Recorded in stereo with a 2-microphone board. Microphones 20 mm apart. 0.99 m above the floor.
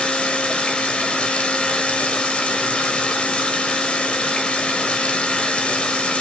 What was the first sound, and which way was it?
Running water, 75° left (ahead or behind).